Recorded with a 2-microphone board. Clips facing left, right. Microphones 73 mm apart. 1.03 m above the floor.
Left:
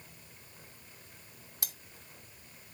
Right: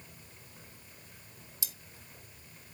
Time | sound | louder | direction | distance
1.6 | cutlery clinking | left 3 dB | 55° left (ahead or behind) | 0.8 m